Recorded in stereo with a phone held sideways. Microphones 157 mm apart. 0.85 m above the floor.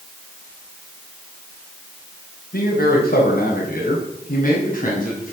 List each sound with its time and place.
2.5 s a man speaking: 80° left, 4 m; by 5.3 s 55° left (ahead or behind), 6.5 m